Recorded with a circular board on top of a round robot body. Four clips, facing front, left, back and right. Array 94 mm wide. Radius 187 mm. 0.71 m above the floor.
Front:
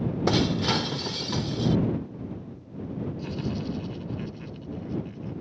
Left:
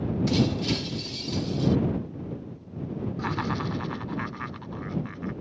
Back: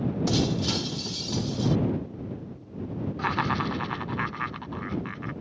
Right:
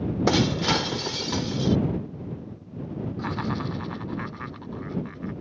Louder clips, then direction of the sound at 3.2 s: Even, back 5 dB; 175° left.